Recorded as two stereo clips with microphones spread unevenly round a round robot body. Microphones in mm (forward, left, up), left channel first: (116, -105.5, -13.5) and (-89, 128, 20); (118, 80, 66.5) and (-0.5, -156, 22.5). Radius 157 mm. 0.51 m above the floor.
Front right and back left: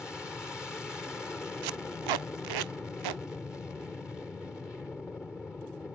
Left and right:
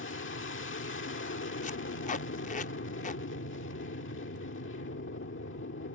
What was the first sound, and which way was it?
An aircraft, 35° left.